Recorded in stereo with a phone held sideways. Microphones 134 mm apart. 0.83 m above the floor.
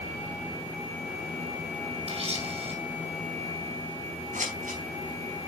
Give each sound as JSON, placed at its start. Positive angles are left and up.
{"t": 2.1, "sound": "a camera shutter", "side_deg": -50, "distance_m": 2.5}
{"t": 4.3, "sound": "scissors", "side_deg": -70, "distance_m": 5.5}